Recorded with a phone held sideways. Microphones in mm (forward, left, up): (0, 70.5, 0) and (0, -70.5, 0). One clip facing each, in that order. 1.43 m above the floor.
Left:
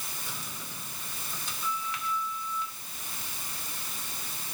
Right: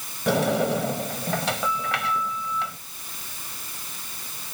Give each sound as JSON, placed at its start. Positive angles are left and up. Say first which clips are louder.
{"t": 0.3, "sound": "a sliding door", "louder": "right 29 dB", "side_deg": -85}